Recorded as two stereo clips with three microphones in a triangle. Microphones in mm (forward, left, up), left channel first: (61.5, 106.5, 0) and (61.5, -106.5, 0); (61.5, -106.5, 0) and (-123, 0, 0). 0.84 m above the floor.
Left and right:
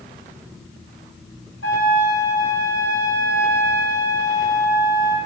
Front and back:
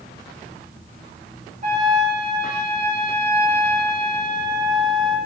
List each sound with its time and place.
1.6 s a trumpet: 95° left, 3.5 m